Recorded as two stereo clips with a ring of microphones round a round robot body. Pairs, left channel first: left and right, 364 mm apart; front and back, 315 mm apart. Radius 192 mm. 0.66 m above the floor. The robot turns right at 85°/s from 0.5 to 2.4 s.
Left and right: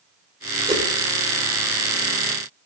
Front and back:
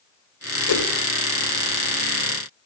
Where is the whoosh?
15° right, 2.5 m; by 0.9 s straight ahead, 2.5 m.